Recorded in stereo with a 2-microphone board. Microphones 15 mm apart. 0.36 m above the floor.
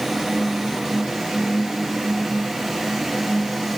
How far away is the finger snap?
I don't hear a finger snap.